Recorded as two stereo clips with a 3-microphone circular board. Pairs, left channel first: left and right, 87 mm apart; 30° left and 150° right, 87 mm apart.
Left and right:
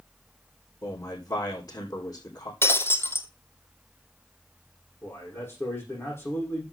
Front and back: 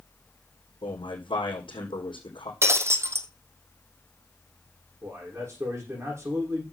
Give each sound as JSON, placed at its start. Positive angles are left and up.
{"t": 0.8, "sound": "a man speaking", "azimuth_deg": 45, "distance_m": 4.0}
{"t": 2.6, "sound": "breaking glass", "azimuth_deg": 150, "distance_m": 1.2}
{"t": 5.0, "sound": "a man speaking", "azimuth_deg": 155, "distance_m": 6.0}